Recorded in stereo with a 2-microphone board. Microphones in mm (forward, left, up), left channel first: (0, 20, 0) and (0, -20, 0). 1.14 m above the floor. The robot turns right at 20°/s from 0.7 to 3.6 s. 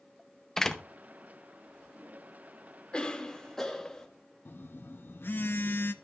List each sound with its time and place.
0.6 s a door slam: 15° left (ahead or behind), 0.7 m; by 0.8 s 10° left (ahead or behind), 0.7 m
2.9 s a cough: 25° left (ahead or behind), 1.3 m; by 4.1 s 10° left (ahead or behind), 1.3 m
4.5 s a phone buzzing: 60° left (ahead or behind), 0.6 m